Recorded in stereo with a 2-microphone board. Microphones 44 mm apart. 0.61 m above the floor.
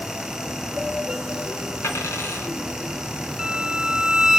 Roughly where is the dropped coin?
Left.